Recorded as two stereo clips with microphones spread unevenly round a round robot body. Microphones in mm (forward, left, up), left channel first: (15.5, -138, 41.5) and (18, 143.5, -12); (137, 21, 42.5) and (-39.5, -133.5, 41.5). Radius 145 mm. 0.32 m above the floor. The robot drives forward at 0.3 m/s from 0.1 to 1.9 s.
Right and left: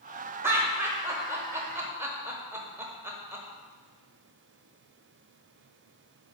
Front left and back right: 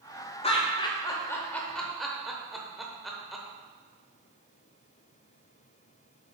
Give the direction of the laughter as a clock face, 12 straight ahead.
10 o'clock.